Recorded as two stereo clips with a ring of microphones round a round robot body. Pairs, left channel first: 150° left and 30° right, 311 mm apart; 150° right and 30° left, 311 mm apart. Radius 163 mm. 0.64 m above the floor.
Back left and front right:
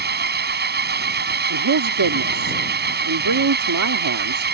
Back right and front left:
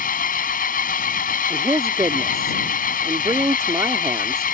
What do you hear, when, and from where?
0.0 s an engine running: 85° right
1.5 s a man speaking: 50° right